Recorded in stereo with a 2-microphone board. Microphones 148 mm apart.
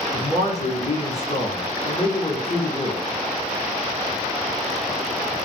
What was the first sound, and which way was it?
A man speaking, 50° left (ahead or behind).